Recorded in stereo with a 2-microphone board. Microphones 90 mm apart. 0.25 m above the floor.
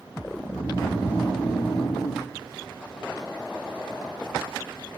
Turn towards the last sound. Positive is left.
turn(degrees=40)  # may be behind; listen again after turning